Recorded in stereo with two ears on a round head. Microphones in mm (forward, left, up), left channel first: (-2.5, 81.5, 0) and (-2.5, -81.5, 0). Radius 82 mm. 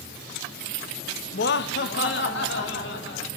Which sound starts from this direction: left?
Laughter, at 1.3 s.